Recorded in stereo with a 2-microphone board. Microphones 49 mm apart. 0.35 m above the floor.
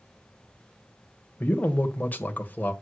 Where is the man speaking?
35° left (ahead or behind), 1.4 m.